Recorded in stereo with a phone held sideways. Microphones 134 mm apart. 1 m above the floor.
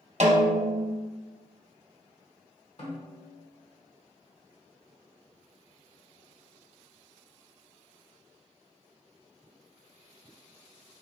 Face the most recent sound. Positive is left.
turn(degrees=50)  # may be behind; listen again after turning